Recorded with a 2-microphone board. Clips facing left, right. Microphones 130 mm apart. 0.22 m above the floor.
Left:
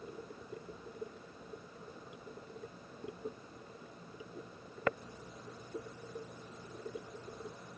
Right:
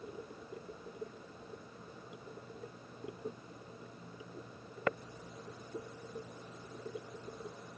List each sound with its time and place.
Only background noise.